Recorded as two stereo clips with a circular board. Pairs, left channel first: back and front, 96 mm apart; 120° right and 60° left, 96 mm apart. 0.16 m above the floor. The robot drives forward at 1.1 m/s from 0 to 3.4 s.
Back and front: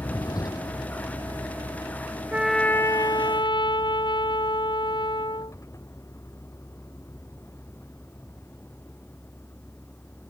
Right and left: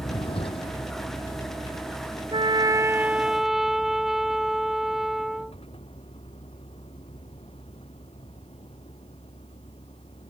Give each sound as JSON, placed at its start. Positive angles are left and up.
{"t": 0.0, "sound": "a vehicle", "azimuth_deg": -130}
{"t": 2.3, "sound": "a trumpet", "azimuth_deg": 75}